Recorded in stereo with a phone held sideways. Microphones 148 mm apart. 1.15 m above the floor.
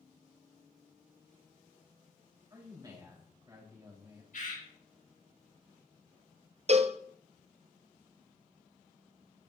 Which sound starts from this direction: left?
A bird, at 4.3 s.